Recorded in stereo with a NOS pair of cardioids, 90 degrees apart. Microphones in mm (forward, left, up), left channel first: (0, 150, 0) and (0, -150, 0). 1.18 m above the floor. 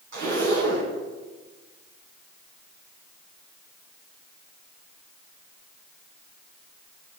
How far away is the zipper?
About 6.5 m.